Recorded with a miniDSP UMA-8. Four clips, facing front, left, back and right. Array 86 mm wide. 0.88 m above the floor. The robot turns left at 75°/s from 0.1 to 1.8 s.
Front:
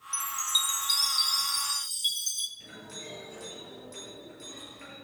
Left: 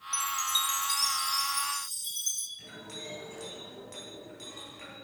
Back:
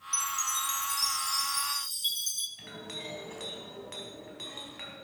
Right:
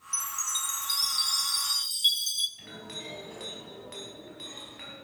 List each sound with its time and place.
0.1 s a chime: 45° left, 0.8 m; by 2.5 s 80° right, 0.8 m
2.6 s a clink: 160° right, 4.5 m